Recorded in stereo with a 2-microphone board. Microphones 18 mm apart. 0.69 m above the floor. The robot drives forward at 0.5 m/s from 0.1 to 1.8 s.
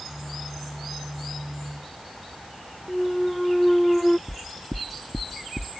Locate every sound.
2.9 s a clunk: 15° left (ahead or behind)
4.3 s knocking: 65° right (ahead or behind)